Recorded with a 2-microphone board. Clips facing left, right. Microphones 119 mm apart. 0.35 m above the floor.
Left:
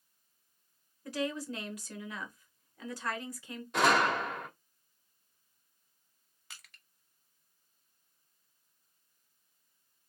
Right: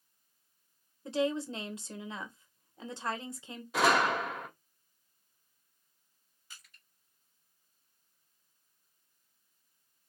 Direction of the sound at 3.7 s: 5° right (ahead or behind).